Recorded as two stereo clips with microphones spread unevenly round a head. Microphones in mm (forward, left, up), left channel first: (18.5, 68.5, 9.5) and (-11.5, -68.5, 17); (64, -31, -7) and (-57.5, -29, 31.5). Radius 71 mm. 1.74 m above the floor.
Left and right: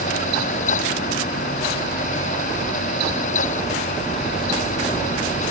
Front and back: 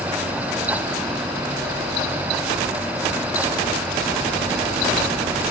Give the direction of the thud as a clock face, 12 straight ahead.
I don't hear a thud.